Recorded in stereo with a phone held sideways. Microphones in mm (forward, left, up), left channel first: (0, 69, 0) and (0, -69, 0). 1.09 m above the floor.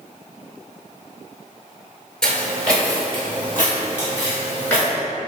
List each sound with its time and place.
2.2 s footsteps: 5° left (ahead or behind), 1.1 m; by 4.9 s 15° left (ahead or behind), 2.5 m